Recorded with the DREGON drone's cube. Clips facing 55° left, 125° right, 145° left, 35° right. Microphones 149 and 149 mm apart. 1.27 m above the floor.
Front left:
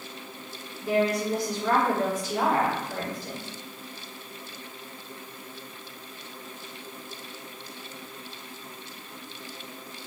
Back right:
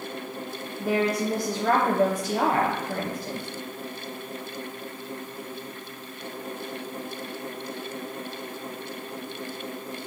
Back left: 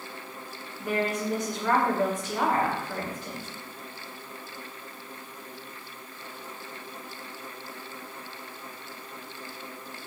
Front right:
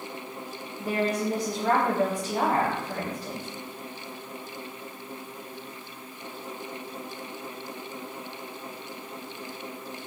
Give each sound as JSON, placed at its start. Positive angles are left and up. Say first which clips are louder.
{"t": 0.8, "sound": "a woman speaking", "louder": "even, front right 2 dB", "azimuth_deg": -110, "distance_m": 0.6}